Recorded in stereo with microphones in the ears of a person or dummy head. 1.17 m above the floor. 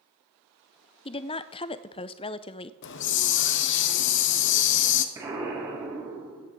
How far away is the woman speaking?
About 0.5 m.